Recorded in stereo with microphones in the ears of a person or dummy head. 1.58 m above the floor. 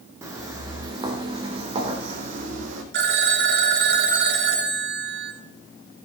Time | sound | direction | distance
0.2 | footsteps | 20° right (ahead or behind) | 4 m
2.9 | a phone ringing | 65° right (ahead or behind) | 3 m